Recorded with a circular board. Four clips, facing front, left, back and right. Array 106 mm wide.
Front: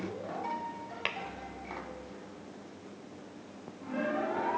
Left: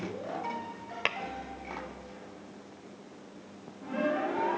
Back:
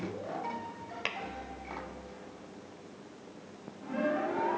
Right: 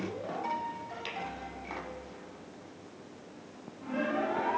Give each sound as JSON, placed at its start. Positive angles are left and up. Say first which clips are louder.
{"t": 1.1, "sound": "tapping", "louder": "left 7 dB, front 1 dB", "azimuth_deg": 80, "distance_m": 0.6}